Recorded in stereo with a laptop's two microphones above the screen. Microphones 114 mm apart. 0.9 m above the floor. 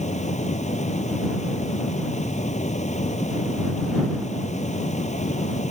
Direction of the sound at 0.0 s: 85° left.